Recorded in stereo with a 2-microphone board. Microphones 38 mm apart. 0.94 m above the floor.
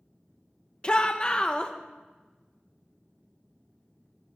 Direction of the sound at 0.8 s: 30° left (ahead or behind).